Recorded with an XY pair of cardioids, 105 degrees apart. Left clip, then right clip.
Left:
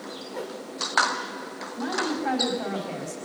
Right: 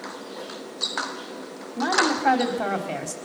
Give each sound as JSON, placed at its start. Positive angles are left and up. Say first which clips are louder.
{"t": 0.3, "sound": "a whoosh", "louder": "left 1 dB", "azimuth_deg": 50, "distance_m": 5.0}
{"t": 1.8, "sound": "a woman speaking", "louder": "right 7 dB", "azimuth_deg": -55, "distance_m": 4.0}